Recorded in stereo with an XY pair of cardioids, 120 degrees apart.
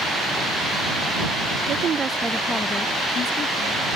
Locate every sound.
1.7 s a woman speaking: 55° right; by 3.9 s 60° left